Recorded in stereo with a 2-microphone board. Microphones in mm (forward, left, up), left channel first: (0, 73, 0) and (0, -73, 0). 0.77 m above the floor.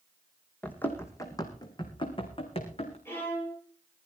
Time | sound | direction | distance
0.6 | running footsteps | 10° left (ahead or behind) | 2.5 m
3.0 | a violin | 15° left (ahead or behind) | 9 m